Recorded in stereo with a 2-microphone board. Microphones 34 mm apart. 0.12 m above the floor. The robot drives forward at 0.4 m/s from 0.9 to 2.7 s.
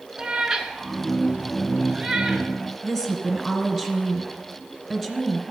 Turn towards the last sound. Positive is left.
turn(degrees=15)  # may be behind; listen again after turning